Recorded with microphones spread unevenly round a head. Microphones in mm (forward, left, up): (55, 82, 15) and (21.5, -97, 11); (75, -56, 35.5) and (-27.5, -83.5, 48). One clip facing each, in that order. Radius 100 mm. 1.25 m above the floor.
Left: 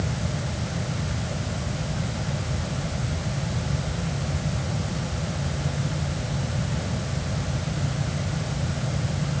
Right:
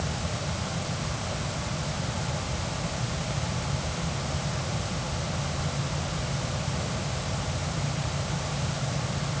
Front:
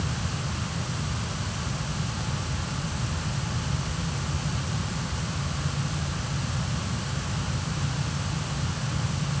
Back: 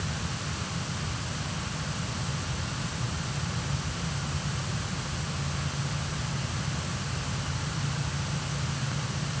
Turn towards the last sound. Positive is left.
No sound to turn to.